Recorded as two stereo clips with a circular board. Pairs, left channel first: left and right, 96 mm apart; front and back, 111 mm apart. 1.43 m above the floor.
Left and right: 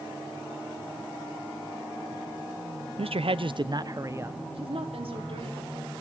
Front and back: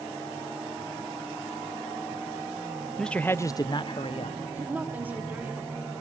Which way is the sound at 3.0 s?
85° right.